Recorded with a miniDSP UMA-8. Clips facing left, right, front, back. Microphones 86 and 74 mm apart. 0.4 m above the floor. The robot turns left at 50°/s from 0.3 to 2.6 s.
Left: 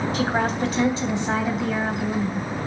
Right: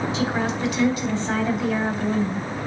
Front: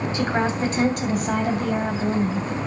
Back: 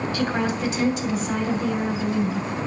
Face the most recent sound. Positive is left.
turn(degrees=-50)